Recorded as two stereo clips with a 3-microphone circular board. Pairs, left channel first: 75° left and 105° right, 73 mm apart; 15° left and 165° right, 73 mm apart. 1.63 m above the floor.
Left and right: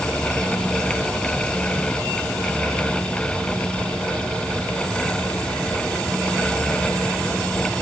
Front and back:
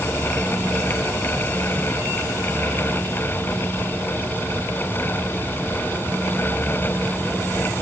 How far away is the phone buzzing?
I don't hear a phone buzzing.